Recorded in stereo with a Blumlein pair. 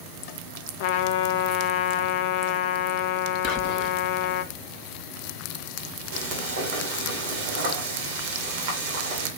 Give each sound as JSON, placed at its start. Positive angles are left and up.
{"t": 0.8, "sound": "a trumpet", "azimuth_deg": 50, "distance_m": 0.5}
{"t": 3.4, "sound": "whispering", "azimuth_deg": 25, "distance_m": 1.0}
{"t": 6.1, "sound": "frying", "azimuth_deg": -50, "distance_m": 2.0}